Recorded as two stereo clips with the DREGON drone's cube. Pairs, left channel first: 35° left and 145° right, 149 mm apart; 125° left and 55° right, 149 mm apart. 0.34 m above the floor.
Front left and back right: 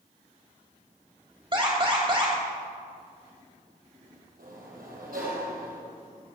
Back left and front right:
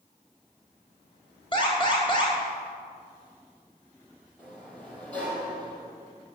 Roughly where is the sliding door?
Behind right.